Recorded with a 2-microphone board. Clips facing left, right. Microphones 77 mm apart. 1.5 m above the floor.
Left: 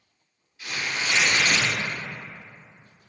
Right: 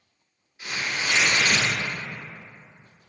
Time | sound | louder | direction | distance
0.6 | tearing paper | even | 30° right (ahead or behind) | 1.6 m